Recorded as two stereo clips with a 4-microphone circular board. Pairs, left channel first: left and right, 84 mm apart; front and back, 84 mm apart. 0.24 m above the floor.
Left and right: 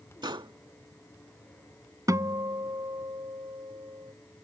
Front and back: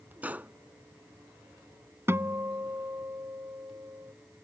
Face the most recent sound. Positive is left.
turn(degrees=-125)